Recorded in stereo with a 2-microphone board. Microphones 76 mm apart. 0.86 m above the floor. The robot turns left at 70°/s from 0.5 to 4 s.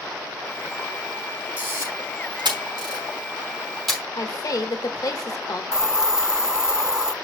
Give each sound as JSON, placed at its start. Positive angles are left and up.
{"t": 1.6, "sound": "a camera shutter", "side_deg": -20, "distance_m": 3.0}
{"t": 4.2, "sound": "a woman speaking", "side_deg": 50, "distance_m": 1.4}
{"t": 5.7, "sound": "a hiss", "side_deg": -5, "distance_m": 0.6}